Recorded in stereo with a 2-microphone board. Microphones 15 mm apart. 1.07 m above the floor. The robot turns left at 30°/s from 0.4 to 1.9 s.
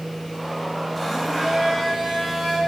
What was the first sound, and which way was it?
A blender, 15° right (ahead or behind).